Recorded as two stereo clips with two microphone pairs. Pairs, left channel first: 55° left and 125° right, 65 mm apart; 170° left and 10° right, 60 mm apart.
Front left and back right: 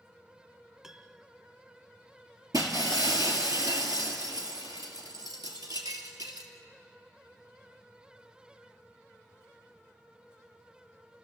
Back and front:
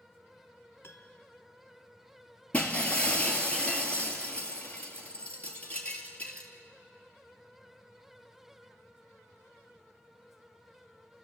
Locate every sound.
0.8 s a piano: 160° left, 1.2 m
2.5 s breaking glass: 125° right, 2.5 m